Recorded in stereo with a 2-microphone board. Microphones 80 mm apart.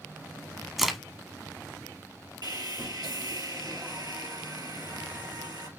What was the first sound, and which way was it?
A crack, centre (ahead or behind).